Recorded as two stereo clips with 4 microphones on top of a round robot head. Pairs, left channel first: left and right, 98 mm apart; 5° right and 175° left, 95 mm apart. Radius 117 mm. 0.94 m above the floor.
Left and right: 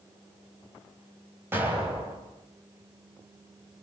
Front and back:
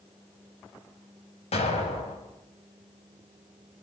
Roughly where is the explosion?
Ahead.